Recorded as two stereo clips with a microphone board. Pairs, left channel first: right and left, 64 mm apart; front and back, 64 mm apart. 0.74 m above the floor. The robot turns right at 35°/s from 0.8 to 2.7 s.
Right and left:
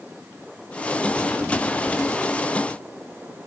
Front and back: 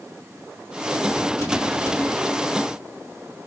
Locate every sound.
Only background noise.